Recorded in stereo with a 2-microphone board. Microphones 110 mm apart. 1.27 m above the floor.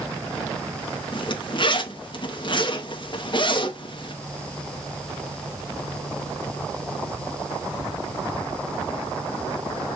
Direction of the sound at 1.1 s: 45° left (ahead or behind).